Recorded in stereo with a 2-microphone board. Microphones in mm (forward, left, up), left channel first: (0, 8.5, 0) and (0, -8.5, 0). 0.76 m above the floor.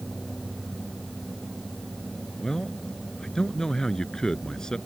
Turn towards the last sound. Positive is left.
turn(degrees=45)  # may be behind; listen again after turning